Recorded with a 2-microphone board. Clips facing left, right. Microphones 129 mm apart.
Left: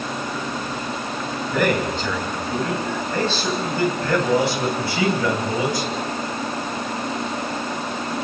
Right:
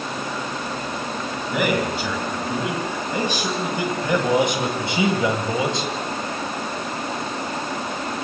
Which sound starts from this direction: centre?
A man speaking, at 1.5 s.